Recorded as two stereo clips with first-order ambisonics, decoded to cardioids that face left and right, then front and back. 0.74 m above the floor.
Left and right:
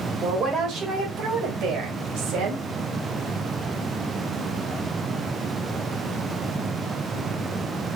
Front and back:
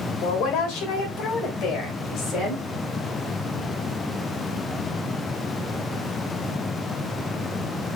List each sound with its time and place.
0.2 s a woman speaking: 30° right, 3 m; by 2.6 s 55° right, 4 m